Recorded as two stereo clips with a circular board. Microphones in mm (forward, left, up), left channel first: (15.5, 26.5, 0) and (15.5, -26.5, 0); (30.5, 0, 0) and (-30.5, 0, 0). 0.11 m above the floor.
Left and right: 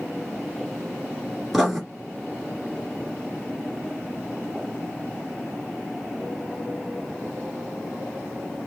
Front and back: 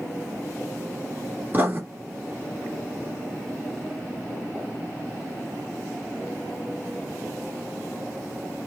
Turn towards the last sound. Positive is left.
turn(degrees=-175)